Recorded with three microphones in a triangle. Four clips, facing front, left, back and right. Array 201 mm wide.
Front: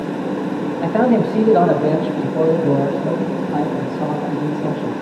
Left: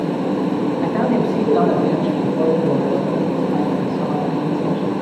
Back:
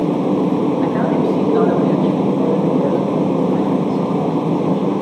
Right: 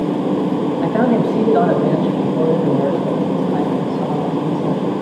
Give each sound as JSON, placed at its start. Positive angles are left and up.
{"t": 0.8, "sound": "a man speaking", "azimuth_deg": -30, "distance_m": 5.0}